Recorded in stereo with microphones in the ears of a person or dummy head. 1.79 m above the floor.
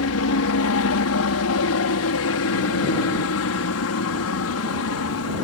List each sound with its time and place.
0.0 s a helicopter: 75° left (ahead or behind)